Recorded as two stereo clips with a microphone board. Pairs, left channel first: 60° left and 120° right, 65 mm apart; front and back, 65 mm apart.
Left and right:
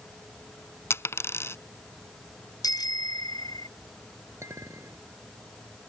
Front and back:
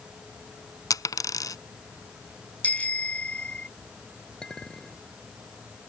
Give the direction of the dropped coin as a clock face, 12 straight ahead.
11 o'clock.